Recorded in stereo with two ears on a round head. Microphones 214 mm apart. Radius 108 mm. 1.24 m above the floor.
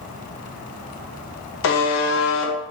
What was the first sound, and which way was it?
A buzzer, 50° left (ahead or behind).